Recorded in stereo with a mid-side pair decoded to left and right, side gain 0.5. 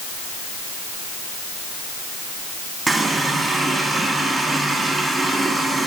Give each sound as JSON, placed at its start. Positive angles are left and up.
{"t": 2.9, "sound": "a running tap", "azimuth_deg": -30, "distance_m": 1.9}